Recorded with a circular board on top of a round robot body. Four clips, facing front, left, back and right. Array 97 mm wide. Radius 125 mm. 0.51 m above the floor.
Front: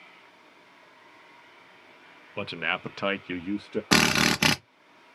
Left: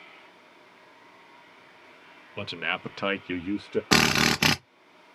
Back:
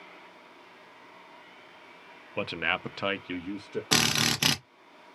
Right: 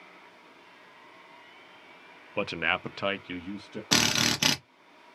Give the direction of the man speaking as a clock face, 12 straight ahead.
3 o'clock.